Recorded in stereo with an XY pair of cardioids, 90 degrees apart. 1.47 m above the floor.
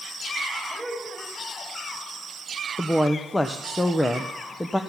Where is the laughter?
Straight ahead, 4 m.